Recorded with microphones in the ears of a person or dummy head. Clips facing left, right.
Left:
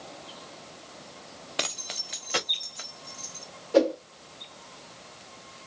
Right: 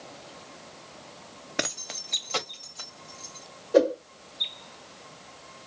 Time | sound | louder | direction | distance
1.6 | keys jangling | right 3 dB | 25° right (ahead or behind) | 0.6 m
3.7 | a whoosh | right 1 dB | 10° right (ahead or behind) | 1.7 m